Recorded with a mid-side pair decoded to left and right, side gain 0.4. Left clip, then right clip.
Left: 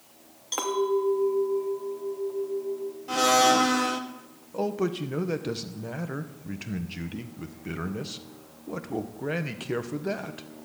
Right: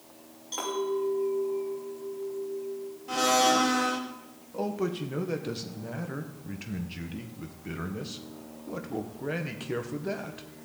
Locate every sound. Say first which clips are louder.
0.5 s a clink: left 4 dB; 60° left, 2.5 m
3.1 s a blender: left 3 dB; 25° left, 1.6 m
4.5 s a man speaking: left 3 dB; 25° left, 1.5 m